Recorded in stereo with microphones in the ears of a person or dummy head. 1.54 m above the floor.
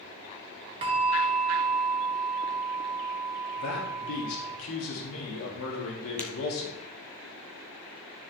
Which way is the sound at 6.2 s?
5° left (ahead or behind).